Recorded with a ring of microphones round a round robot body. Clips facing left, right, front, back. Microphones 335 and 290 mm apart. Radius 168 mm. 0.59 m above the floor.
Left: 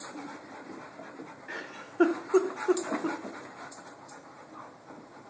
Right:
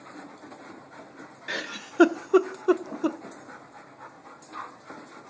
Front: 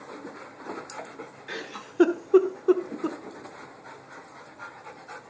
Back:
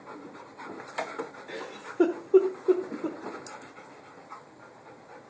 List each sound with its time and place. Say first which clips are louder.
1.5 s a giggle: right 5 dB, even; 70° right, 0.8 m